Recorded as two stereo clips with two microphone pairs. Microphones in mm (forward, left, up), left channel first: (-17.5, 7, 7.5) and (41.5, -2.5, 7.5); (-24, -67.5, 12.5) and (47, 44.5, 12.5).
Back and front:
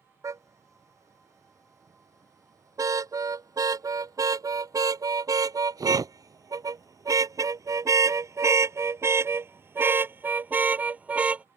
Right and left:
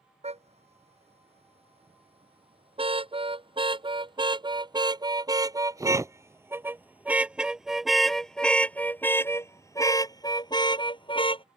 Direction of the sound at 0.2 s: 25° left.